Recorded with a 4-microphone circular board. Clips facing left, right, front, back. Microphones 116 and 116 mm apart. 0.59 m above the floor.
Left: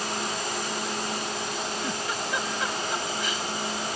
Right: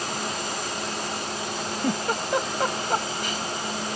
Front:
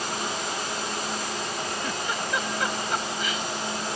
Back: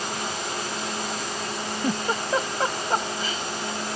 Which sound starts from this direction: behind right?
A giggle, at 1.8 s.